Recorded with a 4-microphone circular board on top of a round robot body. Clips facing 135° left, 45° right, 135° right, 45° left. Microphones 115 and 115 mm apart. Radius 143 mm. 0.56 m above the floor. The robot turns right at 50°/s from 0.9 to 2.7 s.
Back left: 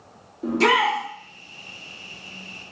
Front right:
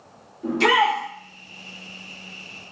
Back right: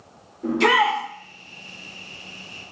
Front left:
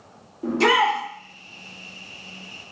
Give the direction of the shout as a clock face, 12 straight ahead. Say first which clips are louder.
Front right 1 dB, even; 9 o'clock.